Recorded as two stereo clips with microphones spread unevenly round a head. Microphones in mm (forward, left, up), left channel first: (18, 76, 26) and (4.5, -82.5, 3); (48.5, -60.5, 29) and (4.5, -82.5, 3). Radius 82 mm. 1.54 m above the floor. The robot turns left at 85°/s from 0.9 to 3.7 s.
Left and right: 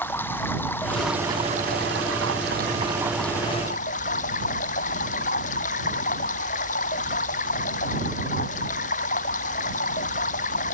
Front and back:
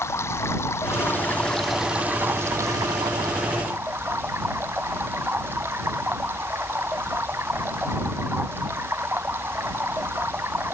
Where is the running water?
10° left; by 10.7 s 130° left.